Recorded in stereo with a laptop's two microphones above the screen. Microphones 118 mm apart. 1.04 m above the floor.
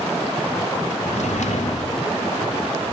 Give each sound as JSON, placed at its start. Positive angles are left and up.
{"t": 1.0, "sound": "a drawer", "side_deg": 85, "distance_m": 1.6}